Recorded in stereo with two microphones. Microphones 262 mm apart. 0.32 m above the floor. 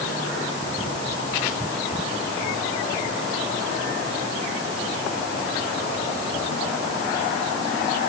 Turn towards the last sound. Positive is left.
No sound to turn to.